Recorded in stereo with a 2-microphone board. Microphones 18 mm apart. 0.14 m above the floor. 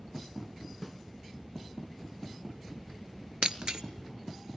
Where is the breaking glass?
55° right (ahead or behind), 1.1 m.